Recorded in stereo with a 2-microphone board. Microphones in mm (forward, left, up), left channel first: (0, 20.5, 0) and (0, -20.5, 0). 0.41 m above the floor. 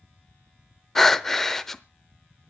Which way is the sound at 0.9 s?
10° left (ahead or behind).